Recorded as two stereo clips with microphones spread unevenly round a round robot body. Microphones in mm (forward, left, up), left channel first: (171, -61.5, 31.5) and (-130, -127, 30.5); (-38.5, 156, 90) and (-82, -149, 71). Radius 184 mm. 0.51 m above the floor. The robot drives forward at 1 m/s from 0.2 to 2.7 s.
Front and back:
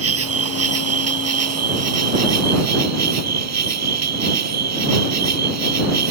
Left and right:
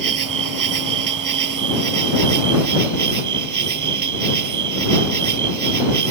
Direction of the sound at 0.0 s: 120° right.